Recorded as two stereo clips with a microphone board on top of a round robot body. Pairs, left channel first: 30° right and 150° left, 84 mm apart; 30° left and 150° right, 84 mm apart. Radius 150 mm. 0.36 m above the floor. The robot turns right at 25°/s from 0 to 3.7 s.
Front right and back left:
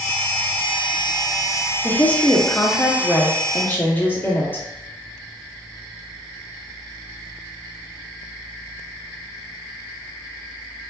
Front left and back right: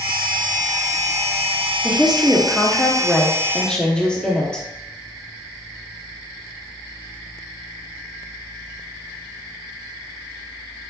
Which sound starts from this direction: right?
A woman speaking, at 1.8 s.